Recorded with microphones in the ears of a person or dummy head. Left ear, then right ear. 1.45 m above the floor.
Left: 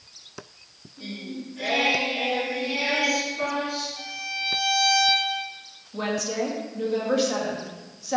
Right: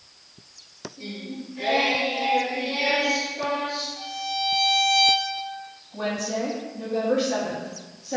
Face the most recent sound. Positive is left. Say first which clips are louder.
# left 1 dB
turn(degrees=80)